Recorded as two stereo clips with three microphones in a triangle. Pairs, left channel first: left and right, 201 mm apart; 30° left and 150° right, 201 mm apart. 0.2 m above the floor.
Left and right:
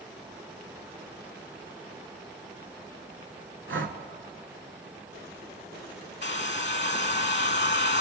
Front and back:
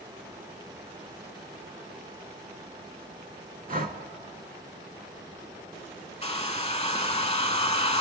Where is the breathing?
100° right, 0.6 m.